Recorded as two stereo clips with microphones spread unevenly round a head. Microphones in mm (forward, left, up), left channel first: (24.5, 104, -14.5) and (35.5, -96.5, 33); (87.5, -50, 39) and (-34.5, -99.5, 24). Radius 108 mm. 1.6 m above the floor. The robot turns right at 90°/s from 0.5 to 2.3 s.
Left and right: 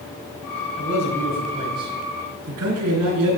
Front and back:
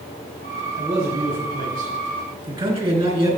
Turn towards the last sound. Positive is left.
turn(degrees=-115)